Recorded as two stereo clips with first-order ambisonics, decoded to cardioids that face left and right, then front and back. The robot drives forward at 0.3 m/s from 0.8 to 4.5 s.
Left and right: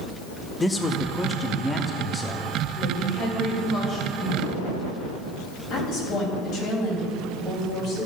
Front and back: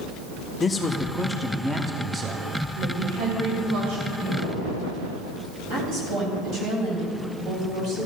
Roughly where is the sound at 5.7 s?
Behind left.